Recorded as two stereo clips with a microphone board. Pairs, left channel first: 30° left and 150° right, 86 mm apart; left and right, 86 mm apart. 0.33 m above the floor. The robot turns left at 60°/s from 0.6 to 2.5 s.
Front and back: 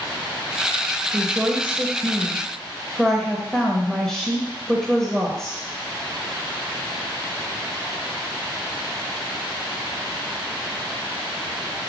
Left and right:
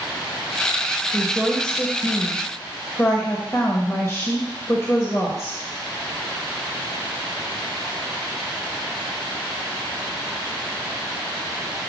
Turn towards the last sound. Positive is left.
turn(degrees=110)